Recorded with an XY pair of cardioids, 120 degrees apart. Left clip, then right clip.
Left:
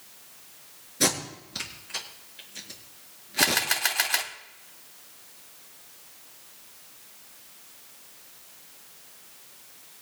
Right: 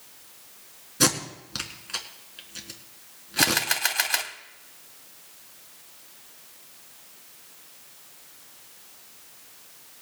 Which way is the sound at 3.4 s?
15° right.